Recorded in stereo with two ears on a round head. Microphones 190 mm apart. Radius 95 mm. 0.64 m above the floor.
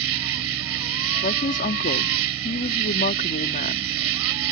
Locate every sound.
0.0 s an insect: 75° right (ahead or behind)
1.2 s a woman speaking: 40° left (ahead or behind)